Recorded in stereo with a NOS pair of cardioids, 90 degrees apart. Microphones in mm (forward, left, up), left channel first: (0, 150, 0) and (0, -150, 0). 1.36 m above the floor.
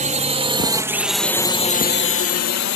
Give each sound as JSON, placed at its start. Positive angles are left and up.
{"t": 0.0, "sound": "a drone", "azimuth_deg": -25}